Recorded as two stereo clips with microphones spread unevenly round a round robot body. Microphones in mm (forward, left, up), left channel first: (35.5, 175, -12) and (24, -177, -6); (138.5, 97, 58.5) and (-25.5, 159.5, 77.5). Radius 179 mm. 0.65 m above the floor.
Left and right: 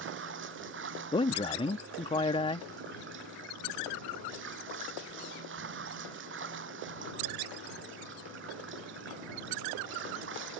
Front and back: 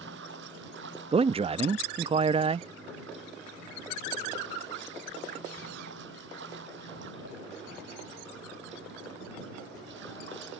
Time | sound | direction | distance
0.0 | running water | 155° right | ?
1.1 | a man speaking | 140° left | ?